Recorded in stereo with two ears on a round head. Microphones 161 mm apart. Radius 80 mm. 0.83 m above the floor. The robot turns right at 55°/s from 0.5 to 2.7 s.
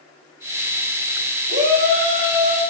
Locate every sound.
1.5 s a shout: 60° right, 3.5 m; by 2.6 s straight ahead, 3.5 m